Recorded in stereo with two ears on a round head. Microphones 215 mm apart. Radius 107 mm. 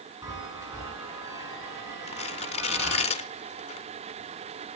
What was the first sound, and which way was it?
A chime, 15° right (ahead or behind).